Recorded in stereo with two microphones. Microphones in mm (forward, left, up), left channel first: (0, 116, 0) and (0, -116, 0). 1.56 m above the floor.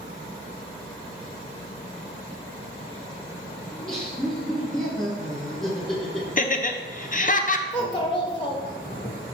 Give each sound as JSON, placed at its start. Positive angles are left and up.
{"t": 3.7, "sound": "laughter", "side_deg": 0, "distance_m": 1.6}
{"t": 6.4, "sound": "laughter", "side_deg": 35, "distance_m": 0.7}
{"t": 7.7, "sound": "a child speaking", "side_deg": 20, "distance_m": 0.9}